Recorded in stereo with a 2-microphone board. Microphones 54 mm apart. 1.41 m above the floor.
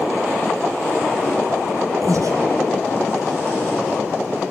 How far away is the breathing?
About 2.5 m.